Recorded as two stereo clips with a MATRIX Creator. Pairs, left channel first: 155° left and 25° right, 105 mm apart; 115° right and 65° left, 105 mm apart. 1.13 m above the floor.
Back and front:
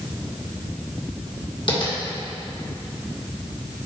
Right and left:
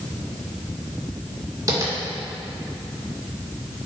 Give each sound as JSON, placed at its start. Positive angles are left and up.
{"t": 1.7, "sound": "tapping", "azimuth_deg": 120, "distance_m": 1.7}